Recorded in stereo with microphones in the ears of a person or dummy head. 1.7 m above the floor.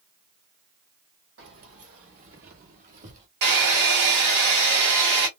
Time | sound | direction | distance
1.4 | keys jangling | 50° right (ahead or behind) | 1.3 m
3.4 | a hair dryer | 50° right (ahead or behind) | 1.7 m